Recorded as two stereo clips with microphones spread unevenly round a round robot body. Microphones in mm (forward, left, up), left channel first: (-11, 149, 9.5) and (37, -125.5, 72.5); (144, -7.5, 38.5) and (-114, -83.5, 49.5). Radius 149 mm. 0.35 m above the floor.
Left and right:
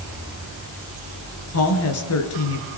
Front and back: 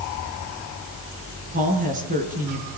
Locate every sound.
1.5 s a woman speaking: 130° left, 4.5 m